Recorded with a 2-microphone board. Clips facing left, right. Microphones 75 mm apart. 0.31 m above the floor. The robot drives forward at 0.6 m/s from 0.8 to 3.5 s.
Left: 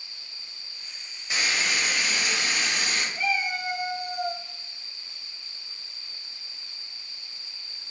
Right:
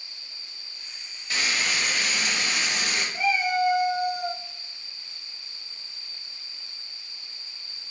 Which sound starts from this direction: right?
A cat meowing, at 3.1 s.